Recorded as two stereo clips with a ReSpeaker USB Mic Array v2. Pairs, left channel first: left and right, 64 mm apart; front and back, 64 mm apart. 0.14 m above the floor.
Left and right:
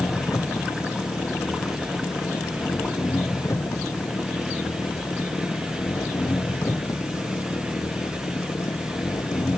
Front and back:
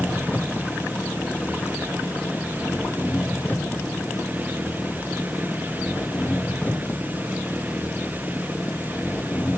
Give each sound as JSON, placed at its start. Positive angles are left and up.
{"t": 0.0, "sound": "an engine running", "azimuth_deg": 60}